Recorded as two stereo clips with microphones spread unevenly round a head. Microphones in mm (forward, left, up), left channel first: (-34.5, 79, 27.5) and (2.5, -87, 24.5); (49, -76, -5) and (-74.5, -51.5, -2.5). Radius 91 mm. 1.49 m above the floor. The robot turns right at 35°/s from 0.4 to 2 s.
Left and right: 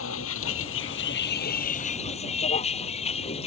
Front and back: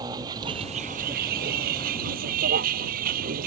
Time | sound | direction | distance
0.0 | a vehicle | 95° left | ?